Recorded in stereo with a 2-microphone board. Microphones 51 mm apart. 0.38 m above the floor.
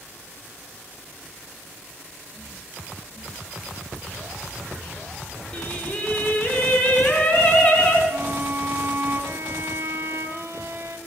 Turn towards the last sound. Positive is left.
turn(degrees=-60)  # may be behind; listen again after turning